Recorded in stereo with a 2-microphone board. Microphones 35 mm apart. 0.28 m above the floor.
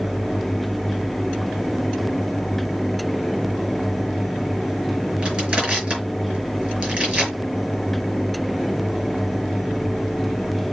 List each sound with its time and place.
5.2 s crushing: 30° right (ahead or behind), 4.5 m